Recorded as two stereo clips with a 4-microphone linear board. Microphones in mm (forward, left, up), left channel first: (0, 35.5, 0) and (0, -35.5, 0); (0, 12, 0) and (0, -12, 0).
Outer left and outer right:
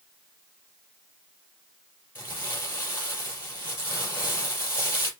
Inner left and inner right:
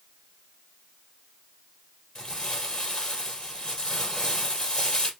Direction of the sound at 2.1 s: 30° left (ahead or behind).